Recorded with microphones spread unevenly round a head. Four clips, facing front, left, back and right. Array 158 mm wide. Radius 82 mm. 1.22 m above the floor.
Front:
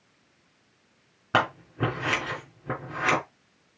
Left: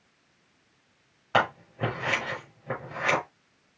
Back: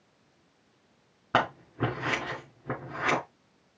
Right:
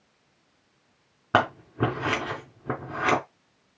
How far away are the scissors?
About 3 m.